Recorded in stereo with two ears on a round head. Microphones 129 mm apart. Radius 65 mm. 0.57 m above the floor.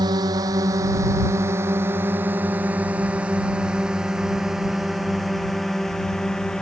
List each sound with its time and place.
0.0 s a drone: 30° right (ahead or behind); by 6.6 s 5° left (ahead or behind)